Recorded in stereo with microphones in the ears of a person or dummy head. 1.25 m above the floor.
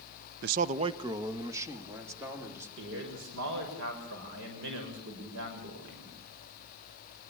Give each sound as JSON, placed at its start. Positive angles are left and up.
{"t": 0.4, "sound": "a man speaking", "side_deg": -60, "distance_m": 0.6}
{"t": 2.8, "sound": "a man speaking", "side_deg": -70, "distance_m": 6.5}